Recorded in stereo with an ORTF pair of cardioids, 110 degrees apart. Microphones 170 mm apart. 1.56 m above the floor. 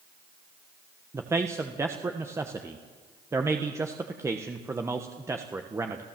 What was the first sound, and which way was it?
A man speaking, 15° right.